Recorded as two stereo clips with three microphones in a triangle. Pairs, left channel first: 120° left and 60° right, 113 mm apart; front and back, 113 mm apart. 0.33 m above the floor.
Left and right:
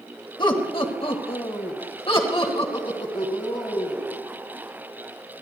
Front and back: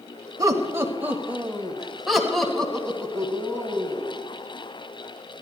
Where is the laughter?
140° left, 1.3 m; by 4.2 s 75° left, 3.5 m.